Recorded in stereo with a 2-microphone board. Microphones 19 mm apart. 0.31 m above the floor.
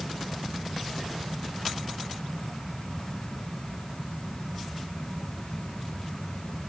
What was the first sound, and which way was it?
Only background noise.